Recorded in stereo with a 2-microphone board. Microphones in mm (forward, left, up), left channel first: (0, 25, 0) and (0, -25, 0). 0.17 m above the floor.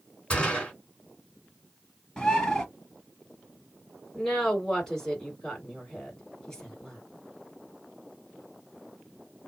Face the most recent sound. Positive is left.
turn(degrees=10)  # may be behind; listen again after turning